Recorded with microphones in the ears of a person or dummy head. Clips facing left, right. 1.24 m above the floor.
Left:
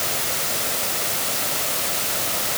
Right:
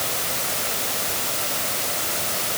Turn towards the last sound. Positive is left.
No sound to turn to.